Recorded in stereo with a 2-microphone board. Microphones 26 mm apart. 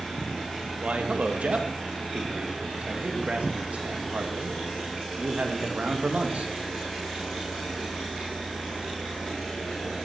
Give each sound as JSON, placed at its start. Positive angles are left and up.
{"t": 0.8, "sound": "a man speaking", "side_deg": -65, "distance_m": 2.0}